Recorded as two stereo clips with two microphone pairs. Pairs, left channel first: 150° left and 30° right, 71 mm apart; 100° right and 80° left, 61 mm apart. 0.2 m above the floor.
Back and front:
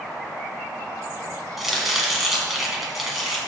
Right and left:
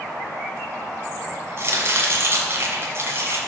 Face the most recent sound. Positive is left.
turn(degrees=60)